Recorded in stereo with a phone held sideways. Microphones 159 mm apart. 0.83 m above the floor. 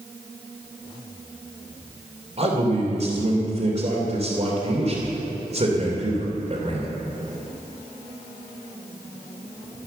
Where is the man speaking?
45° right (ahead or behind), 3 m.